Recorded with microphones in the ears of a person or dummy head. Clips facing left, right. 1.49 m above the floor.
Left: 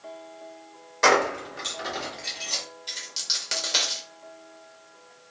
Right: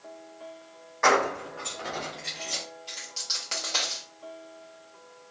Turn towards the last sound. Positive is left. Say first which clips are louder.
# even
turn(degrees=15)  # may be behind; listen again after turning